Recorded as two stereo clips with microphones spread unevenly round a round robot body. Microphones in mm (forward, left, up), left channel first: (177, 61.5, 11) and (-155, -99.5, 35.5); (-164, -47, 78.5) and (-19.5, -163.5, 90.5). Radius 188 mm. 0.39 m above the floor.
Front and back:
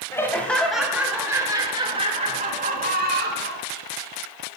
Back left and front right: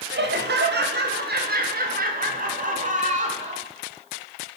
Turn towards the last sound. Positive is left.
turn(degrees=-90)